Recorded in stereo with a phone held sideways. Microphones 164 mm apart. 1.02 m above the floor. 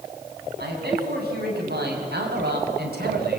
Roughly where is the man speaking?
Right.